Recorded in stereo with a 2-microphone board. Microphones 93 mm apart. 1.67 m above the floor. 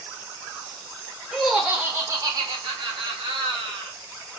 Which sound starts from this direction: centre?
Laughter, at 1.3 s.